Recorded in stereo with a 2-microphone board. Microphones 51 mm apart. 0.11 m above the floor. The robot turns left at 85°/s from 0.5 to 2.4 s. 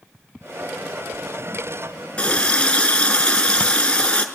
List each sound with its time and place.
2.2 s a running tap: 20° left (ahead or behind), 0.8 m